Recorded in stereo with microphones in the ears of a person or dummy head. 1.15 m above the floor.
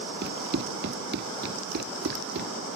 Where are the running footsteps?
55° right (ahead or behind); by 2.5 s 50° right (ahead or behind).